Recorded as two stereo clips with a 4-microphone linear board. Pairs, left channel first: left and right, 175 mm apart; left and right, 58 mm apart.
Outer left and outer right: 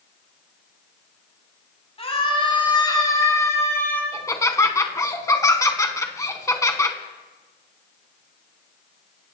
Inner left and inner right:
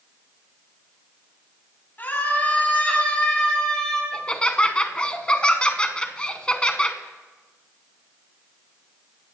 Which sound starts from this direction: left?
A scream, at 2.0 s.